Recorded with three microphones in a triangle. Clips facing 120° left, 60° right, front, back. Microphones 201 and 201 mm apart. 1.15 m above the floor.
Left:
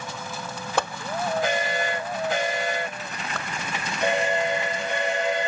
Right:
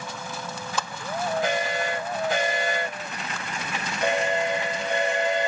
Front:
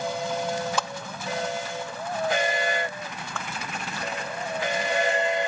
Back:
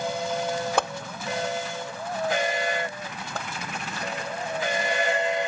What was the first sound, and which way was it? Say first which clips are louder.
A whoosh: left 7 dB, back 5 dB; 150° left.